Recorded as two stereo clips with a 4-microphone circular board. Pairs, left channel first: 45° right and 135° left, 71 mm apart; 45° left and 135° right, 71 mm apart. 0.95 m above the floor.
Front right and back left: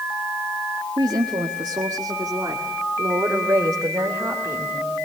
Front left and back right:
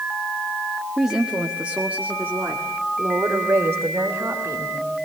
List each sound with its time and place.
1.0 s a woman speaking: 135° left, 1.5 m; by 5.0 s 175° right, 3.5 m